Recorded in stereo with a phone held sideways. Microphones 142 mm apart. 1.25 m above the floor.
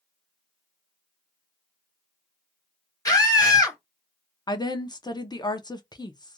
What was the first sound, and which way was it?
A scream, 25° left (ahead or behind).